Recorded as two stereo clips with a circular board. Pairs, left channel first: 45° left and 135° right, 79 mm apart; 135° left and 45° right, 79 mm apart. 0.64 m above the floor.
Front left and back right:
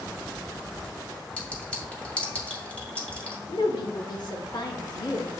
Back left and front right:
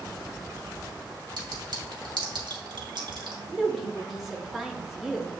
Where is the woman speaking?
40° left, 1.5 m.